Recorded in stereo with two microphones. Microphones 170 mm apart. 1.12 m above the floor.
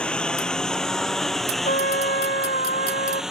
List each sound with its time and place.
0.0 s a lawn mower: 5° left (ahead or behind); by 3.3 s 5° right (ahead or behind)
1.6 s a trumpet: 60° left (ahead or behind)